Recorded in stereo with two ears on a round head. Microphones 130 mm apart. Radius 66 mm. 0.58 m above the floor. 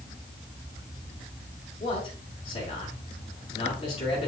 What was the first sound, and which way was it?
A man speaking, 40° left (ahead or behind).